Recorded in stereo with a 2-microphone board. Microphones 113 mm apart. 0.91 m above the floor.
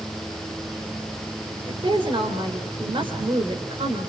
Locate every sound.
1.7 s a woman speaking: 55° right (ahead or behind), 3.5 m